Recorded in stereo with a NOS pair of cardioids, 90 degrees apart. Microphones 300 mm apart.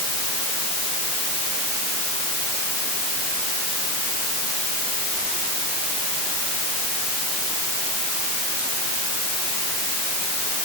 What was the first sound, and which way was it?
Only background noise.